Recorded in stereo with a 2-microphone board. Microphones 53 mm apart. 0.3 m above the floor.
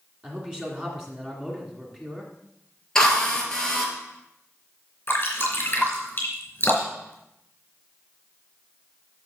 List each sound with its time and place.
0.2 s a man speaking: 15° right (ahead or behind), 2.5 m
3.0 s a drill: 10° left (ahead or behind), 2.5 m
5.1 s dripping: 40° left (ahead or behind), 3.5 m